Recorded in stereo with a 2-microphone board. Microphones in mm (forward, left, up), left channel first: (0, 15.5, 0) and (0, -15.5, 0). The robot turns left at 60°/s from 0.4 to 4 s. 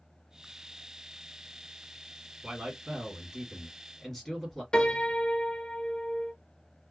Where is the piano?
25° left (ahead or behind), 0.7 m.